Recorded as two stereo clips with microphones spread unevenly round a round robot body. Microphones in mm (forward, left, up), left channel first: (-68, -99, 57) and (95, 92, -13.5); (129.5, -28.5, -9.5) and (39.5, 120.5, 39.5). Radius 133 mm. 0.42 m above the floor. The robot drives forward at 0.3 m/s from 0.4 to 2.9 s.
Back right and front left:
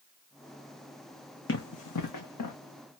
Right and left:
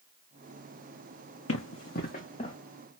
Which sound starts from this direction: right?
Running footsteps, at 1.5 s.